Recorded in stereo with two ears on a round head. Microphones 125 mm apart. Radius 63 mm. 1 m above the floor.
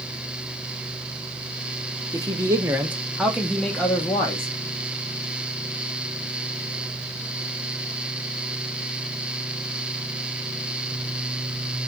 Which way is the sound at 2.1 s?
25° right (ahead or behind).